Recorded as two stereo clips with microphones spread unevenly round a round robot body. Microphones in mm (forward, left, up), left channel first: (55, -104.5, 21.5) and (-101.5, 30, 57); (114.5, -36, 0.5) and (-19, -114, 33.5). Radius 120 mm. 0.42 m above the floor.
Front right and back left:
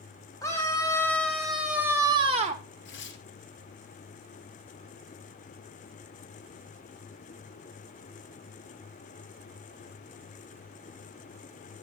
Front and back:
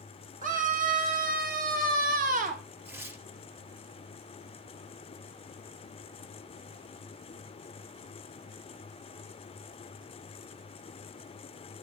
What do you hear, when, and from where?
0.4 s a scream: 110° right, 2.0 m; by 2.6 s straight behind, 0.9 m
2.9 s tearing paper: 75° right, 1.8 m